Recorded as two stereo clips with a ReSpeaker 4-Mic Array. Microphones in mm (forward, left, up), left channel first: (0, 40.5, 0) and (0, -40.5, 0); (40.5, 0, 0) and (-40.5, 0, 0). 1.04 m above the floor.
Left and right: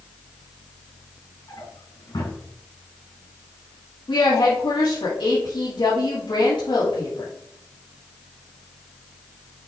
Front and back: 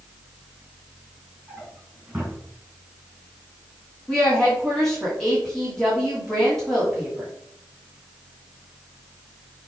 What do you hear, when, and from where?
1.5 s a drawer: 110° left, 3.5 m
4.1 s a woman speaking: 85° left, 2.5 m